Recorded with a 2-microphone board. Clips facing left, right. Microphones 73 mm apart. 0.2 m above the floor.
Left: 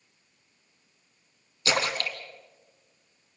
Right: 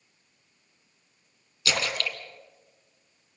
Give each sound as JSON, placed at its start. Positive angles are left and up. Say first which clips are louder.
{"t": 1.6, "sound": "a splash", "louder": "left 2 dB", "side_deg": 35, "distance_m": 2.0}